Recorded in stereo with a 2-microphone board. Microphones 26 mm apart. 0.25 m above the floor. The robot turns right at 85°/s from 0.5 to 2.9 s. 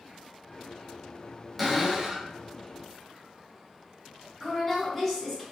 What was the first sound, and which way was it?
A cupboard door, 5° right (ahead or behind).